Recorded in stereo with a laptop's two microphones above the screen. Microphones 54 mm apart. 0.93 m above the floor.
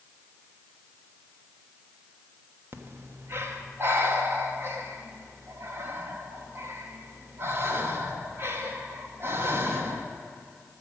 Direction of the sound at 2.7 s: 50° right (ahead or behind).